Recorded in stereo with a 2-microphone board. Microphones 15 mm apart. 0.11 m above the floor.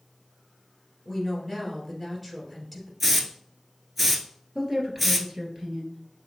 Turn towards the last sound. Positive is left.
turn(degrees=-35)  # may be behind; listen again after turning